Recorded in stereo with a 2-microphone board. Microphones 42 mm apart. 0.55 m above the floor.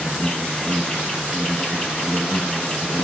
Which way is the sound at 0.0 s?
25° left (ahead or behind).